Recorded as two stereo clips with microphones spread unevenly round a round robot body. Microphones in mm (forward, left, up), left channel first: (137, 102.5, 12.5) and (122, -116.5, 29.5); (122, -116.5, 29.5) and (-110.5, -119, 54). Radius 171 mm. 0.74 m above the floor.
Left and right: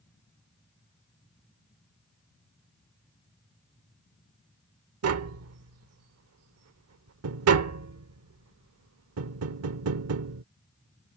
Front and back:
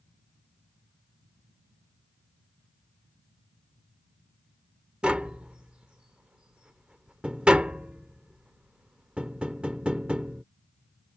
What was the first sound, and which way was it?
Tapping, 95° right.